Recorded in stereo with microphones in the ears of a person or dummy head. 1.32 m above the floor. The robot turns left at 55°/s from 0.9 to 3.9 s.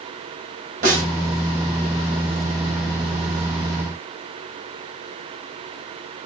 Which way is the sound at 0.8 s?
45° right (ahead or behind).